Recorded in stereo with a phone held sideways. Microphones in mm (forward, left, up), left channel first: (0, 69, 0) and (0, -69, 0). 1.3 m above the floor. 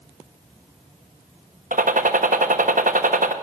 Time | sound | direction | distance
1.7 | a gunshot | 70° right (ahead or behind) | 1.2 m